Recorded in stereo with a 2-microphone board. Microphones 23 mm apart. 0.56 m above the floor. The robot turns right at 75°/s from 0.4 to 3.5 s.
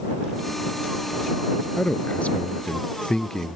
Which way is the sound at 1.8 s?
35° left.